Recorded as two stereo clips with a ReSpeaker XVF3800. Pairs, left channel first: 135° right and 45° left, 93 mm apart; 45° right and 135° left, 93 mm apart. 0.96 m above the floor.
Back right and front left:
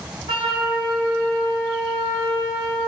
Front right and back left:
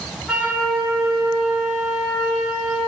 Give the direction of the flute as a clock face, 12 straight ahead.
10 o'clock.